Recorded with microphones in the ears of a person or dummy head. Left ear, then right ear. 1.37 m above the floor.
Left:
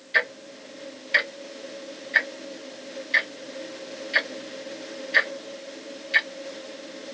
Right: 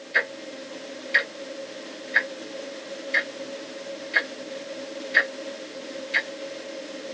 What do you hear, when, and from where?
0.1 s ticking: 25° left (ahead or behind), 0.9 m